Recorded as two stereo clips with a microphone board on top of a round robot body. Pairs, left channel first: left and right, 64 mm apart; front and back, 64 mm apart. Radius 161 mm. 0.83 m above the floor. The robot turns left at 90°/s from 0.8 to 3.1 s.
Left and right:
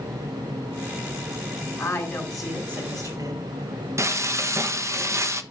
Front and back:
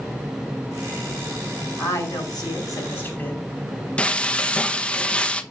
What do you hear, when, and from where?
1.8 s a woman speaking: 55° left, 4.5 m; by 3.4 s 65° right, 4.5 m
4.0 s frying: 70° right, 1.2 m